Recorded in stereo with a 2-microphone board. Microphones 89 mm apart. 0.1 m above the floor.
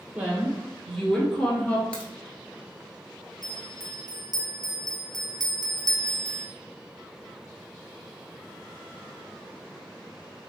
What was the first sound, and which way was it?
A woman speaking, 20° right (ahead or behind).